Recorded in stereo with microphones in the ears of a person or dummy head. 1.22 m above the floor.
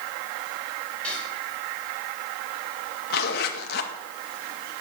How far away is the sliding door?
I don't hear a sliding door.